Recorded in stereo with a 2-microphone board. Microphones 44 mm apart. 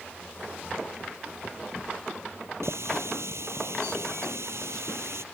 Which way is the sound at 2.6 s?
75° right (ahead or behind).